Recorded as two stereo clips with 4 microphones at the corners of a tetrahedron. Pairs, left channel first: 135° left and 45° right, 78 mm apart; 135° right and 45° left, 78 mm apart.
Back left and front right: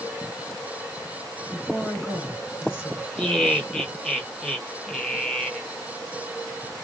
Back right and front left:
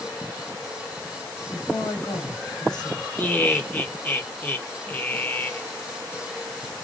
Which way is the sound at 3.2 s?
160° right.